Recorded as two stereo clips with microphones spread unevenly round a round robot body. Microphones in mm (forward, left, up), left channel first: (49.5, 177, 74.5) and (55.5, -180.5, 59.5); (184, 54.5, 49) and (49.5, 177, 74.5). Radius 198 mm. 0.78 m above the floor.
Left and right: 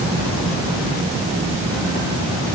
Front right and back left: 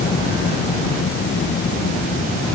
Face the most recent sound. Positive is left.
No sound to turn to.